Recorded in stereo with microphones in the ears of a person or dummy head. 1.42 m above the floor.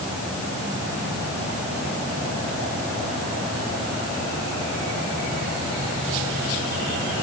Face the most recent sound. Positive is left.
No sound to turn to.